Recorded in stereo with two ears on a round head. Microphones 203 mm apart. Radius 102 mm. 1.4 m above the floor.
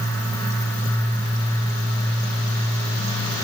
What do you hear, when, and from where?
Only background noise.